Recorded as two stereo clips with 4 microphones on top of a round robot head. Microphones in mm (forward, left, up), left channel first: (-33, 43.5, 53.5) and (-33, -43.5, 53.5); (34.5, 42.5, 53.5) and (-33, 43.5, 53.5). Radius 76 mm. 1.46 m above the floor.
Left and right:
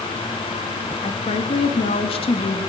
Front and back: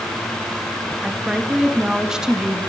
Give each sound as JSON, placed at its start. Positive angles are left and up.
{"t": 1.0, "sound": "a woman speaking", "azimuth_deg": 100, "distance_m": 2.5}